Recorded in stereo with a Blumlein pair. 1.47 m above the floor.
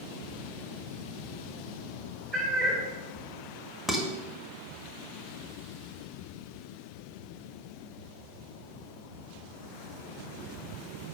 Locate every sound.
2.3 s a cat meowing: 25° right, 3.5 m
3.9 s dishes clattering: 5° right, 1.6 m